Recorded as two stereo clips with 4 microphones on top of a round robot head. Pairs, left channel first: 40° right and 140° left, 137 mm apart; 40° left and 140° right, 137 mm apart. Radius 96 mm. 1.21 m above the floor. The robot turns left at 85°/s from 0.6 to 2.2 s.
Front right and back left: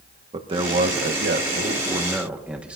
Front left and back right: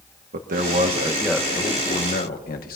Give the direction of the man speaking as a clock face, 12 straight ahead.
6 o'clock.